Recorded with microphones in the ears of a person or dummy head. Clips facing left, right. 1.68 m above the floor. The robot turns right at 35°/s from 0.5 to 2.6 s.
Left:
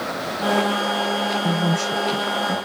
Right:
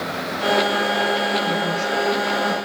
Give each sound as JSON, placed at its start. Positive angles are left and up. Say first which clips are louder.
{"t": 1.4, "sound": "a woman speaking", "louder": "left 1 dB", "azimuth_deg": 100, "distance_m": 1.9}